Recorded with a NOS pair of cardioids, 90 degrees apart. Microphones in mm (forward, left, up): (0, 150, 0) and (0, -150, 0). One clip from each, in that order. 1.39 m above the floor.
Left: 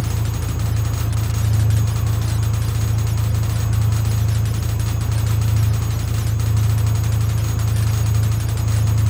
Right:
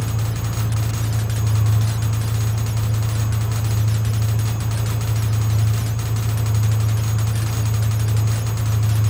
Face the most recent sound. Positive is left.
turn(degrees=35)